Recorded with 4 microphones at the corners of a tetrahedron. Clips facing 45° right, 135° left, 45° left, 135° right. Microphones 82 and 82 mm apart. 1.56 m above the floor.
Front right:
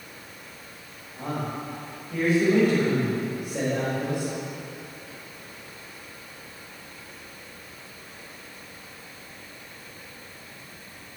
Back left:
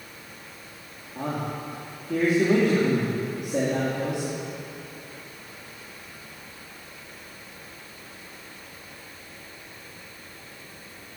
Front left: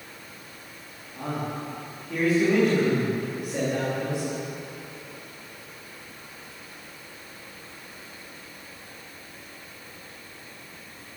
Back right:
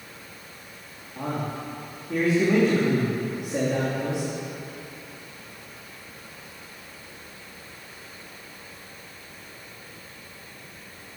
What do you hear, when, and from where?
1.1 s a man speaking: 155° left, 3.5 m